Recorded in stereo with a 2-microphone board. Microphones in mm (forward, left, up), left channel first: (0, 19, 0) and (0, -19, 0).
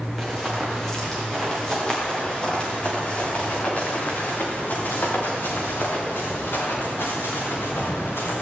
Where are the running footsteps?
Centre (ahead or behind), 6.5 m; by 8.4 s 80° left, 6.5 m.